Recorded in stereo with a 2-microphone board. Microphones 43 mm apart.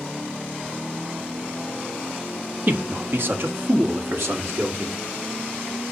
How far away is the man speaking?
About 0.9 m.